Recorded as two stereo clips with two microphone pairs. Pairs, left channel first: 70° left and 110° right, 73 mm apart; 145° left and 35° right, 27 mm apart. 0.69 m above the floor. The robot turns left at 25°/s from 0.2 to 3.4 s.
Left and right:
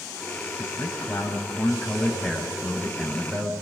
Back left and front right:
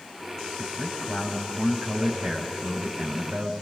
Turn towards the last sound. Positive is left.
turn(degrees=-55)